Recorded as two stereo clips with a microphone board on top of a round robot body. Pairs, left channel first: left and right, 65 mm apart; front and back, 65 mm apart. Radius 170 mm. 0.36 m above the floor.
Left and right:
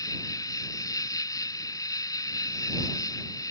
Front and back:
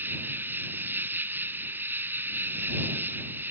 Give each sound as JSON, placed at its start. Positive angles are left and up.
{"t": 0.0, "sound": "an insect", "azimuth_deg": 120}